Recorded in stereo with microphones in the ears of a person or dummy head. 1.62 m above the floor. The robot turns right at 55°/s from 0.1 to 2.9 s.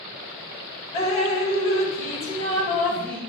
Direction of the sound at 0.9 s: 55° left.